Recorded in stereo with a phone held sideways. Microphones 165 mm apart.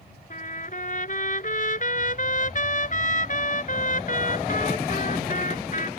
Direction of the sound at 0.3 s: 55° left (ahead or behind).